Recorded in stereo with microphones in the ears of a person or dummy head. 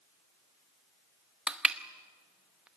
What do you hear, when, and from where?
1.5 s crushing: centre (ahead or behind), 0.8 m